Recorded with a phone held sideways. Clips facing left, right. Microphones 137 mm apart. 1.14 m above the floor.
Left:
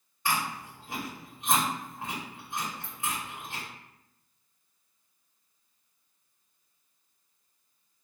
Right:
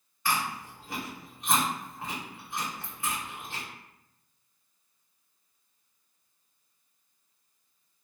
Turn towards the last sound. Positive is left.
turn(degrees=20)  # may be behind; listen again after turning